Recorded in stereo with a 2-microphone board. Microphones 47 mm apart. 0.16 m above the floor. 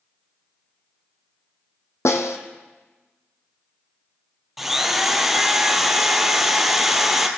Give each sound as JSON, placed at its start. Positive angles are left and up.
{"t": 2.0, "sound": "a snare drum", "side_deg": 80, "distance_m": 1.3}
{"t": 4.6, "sound": "a drill", "side_deg": -5, "distance_m": 1.5}